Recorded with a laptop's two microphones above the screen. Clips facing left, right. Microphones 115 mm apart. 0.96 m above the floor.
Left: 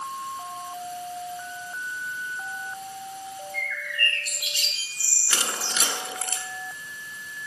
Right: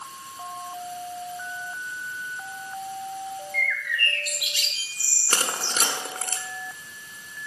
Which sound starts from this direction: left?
A bird, at 3.5 s.